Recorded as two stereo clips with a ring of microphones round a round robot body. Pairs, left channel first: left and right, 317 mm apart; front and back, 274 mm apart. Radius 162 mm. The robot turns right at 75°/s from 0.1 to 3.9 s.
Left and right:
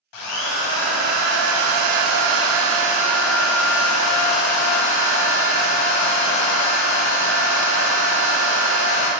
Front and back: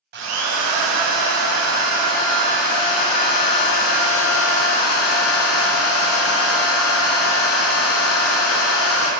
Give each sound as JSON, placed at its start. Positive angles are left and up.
{"t": 0.1, "sound": "a drill", "azimuth_deg": 120, "distance_m": 0.5}